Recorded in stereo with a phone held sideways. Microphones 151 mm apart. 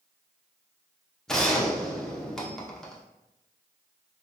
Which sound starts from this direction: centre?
A gunshot, at 1.3 s.